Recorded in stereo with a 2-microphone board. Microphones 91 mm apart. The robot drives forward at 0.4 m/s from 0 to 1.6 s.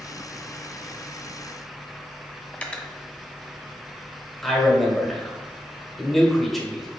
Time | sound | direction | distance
2.5 | cutlery clinking | 15° left (ahead or behind) | 0.5 m
4.4 | a man speaking | centre (ahead or behind) | 1.1 m